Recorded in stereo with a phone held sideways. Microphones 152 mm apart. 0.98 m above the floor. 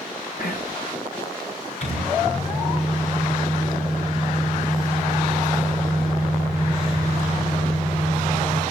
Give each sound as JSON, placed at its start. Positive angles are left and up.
{"t": 0.4, "sound": "whispering", "side_deg": 70, "distance_m": 1.0}
{"t": 1.8, "sound": "a microwave", "side_deg": 45, "distance_m": 9.5}